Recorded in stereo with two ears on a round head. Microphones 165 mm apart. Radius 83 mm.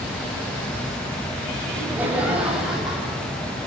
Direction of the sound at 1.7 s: 10° right (ahead or behind).